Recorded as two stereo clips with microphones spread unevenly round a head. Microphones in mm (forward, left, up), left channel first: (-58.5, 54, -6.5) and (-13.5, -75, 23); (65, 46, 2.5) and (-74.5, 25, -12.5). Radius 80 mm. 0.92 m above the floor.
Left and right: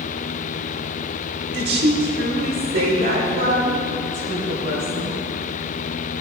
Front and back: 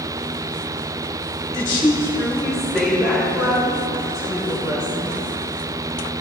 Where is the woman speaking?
50° right, 2.5 m; by 5.2 s 110° right, 5.5 m.